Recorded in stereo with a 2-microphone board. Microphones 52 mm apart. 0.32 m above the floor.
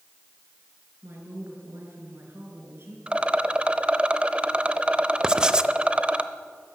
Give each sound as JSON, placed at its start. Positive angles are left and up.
{"t": 1.0, "sound": "a woman speaking", "side_deg": -60, "distance_m": 6.0}
{"t": 3.1, "sound": "a rattle", "side_deg": -20, "distance_m": 0.9}
{"t": 5.2, "sound": "writing", "side_deg": -15, "distance_m": 0.8}